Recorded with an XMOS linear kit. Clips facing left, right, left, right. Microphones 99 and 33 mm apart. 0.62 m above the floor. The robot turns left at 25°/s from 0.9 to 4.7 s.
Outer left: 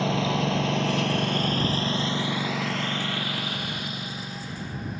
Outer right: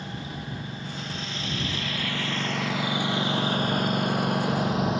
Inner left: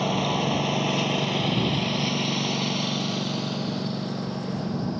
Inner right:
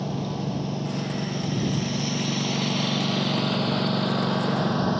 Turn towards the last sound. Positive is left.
turn(degrees=-75)  # may be behind; listen again after turning